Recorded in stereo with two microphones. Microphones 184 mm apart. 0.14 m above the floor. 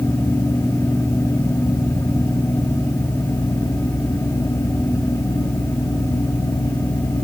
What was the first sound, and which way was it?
Only background noise.